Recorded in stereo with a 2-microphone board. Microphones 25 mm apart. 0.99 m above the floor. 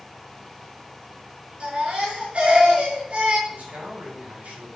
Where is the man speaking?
80° right, 6 m.